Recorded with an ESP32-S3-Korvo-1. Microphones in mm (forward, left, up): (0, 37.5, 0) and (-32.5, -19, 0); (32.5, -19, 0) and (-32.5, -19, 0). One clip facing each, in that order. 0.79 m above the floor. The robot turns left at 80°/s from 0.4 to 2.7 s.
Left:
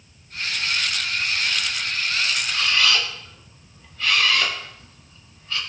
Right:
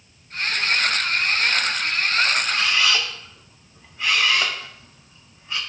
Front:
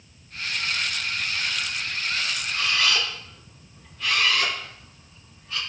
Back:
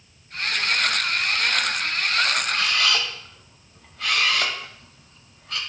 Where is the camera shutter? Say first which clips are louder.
Even, back 1 dB; straight behind, 2 m; by 5.6 s 165° left, 2 m.